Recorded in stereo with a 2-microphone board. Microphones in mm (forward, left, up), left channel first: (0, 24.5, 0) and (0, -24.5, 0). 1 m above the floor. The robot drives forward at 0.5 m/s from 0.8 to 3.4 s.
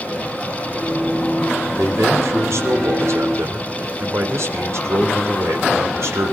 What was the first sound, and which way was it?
A man speaking, 75° right (ahead or behind).